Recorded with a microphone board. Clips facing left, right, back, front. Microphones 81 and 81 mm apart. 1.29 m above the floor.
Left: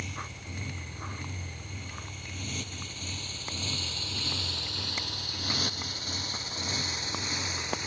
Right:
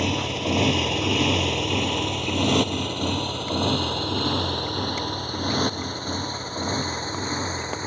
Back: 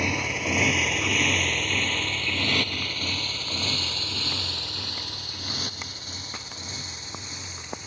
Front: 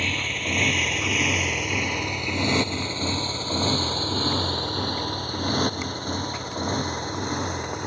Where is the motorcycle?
105° right; by 7.9 s 35° right.